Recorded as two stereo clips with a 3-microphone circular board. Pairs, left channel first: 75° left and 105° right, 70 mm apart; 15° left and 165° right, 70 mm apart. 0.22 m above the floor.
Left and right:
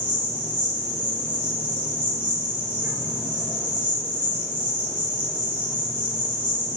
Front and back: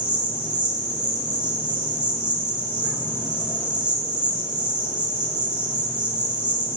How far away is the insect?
About 1.4 m.